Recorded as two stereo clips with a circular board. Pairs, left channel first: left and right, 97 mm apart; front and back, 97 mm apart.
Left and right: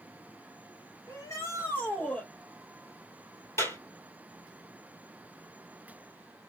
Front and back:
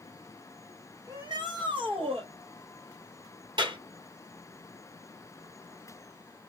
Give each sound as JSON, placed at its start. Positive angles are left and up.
{"t": 1.1, "sound": "a shout", "azimuth_deg": 135, "distance_m": 2.5}
{"t": 3.6, "sound": "a clap", "azimuth_deg": 150, "distance_m": 2.5}